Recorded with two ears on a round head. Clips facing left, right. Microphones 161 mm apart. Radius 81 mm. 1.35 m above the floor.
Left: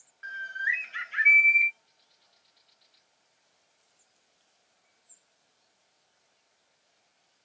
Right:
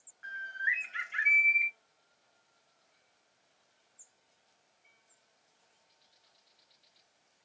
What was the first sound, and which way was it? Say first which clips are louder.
A bird: left 3 dB; 50° left (ahead or behind).